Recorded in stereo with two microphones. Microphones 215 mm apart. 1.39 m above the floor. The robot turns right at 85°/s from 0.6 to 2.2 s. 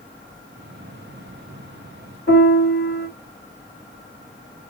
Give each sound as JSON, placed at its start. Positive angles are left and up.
{"t": 2.3, "sound": "a piano", "side_deg": 50, "distance_m": 1.8}